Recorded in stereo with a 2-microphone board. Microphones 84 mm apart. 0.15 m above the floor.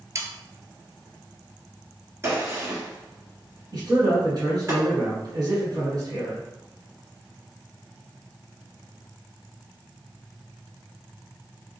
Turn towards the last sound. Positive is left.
turn(degrees=-45)  # may be behind; listen again after turning